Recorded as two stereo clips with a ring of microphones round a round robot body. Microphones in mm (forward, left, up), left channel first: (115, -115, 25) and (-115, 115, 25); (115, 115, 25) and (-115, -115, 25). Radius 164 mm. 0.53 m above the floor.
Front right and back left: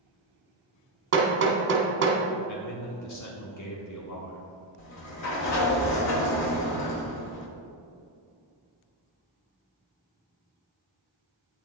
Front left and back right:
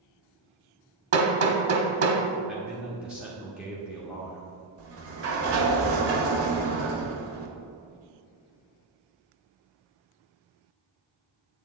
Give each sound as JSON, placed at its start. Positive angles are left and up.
{"t": 1.1, "sound": "hammering", "azimuth_deg": -175, "distance_m": 1.6}
{"t": 2.5, "sound": "a man speaking", "azimuth_deg": -50, "distance_m": 1.2}
{"t": 4.8, "sound": "a sliding door", "azimuth_deg": -85, "distance_m": 1.3}